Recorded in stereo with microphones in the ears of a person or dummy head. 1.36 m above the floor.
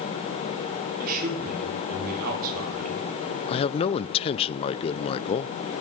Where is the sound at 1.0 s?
50° right (ahead or behind), 4 m.